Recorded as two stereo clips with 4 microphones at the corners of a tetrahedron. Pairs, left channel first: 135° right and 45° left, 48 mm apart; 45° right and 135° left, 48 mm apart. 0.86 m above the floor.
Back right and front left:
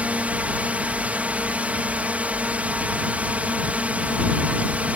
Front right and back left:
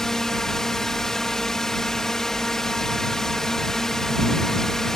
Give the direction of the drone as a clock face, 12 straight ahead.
11 o'clock.